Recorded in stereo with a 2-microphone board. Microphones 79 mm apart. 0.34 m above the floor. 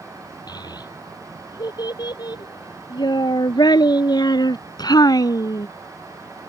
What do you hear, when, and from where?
0.5 s a child speaking: 65° left (ahead or behind); by 5.7 s 50° left (ahead or behind)